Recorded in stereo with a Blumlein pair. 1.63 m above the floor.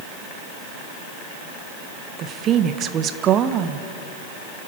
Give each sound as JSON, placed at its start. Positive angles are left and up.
{"t": 2.2, "sound": "a woman speaking", "azimuth_deg": -30, "distance_m": 1.3}